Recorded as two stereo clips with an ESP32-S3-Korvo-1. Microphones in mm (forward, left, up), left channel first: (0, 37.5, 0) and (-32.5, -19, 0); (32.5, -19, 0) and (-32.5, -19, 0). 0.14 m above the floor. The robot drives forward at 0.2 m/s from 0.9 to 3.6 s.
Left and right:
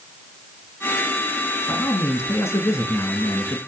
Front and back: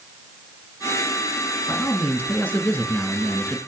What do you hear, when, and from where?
1.7 s a man speaking: 45° left, 1.9 m; by 3.6 s 60° left, 1.8 m